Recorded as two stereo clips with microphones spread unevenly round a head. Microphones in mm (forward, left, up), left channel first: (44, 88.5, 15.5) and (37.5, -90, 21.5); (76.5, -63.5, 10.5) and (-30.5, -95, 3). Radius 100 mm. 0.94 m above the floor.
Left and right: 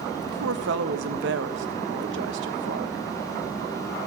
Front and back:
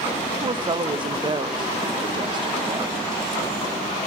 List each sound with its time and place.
0.2 s a woman speaking: 120° right, 0.6 m